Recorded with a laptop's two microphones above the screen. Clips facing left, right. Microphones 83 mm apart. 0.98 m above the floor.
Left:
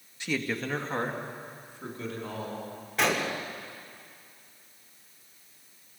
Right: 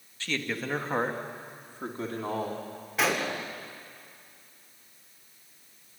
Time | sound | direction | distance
0.2 | a man speaking | 15° left (ahead or behind) | 1.3 m
3.0 | a gunshot | 5° right (ahead or behind) | 1.4 m